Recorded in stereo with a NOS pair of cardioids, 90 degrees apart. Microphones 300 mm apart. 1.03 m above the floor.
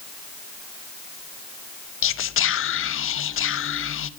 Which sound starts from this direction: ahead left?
Whispering, at 2.0 s.